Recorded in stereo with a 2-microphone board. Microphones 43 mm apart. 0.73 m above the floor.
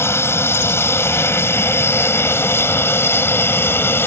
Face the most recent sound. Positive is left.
turn(degrees=55)  # may be behind; listen again after turning